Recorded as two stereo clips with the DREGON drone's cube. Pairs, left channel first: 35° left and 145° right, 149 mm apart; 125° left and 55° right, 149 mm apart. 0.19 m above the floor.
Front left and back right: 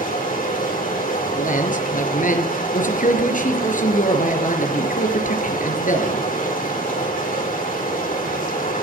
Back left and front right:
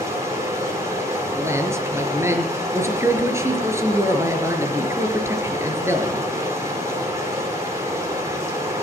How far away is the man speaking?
About 4 m.